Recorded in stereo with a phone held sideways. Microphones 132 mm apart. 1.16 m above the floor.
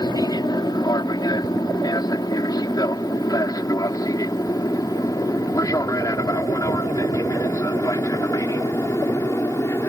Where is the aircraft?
30° left (ahead or behind); by 9.9 s 20° left (ahead or behind).